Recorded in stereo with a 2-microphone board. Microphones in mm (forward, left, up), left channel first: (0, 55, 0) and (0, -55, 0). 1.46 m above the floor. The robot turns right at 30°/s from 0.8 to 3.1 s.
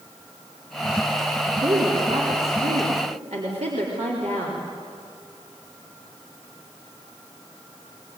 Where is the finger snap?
I don't hear a finger snap.